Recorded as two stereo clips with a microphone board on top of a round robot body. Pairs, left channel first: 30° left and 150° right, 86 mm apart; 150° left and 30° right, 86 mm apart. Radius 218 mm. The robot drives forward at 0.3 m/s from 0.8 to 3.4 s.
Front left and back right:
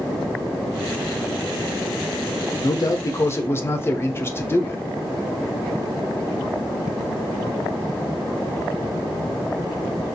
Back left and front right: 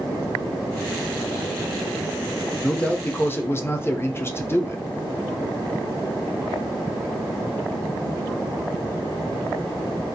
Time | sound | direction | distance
2.6 | a man speaking | 65° left | 0.7 m